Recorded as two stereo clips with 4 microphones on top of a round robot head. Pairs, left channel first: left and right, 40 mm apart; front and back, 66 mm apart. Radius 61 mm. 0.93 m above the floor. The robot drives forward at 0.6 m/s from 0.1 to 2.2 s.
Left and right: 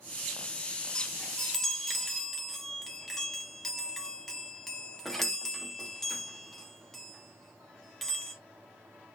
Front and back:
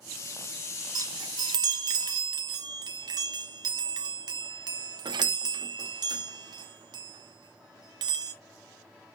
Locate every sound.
0.9 s a chime: 160° left, 0.5 m; by 8.3 s 175° left, 1.2 m